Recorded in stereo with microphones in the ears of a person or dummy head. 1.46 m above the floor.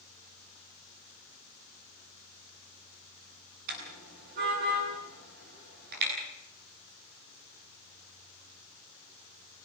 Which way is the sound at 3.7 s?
50° right (ahead or behind).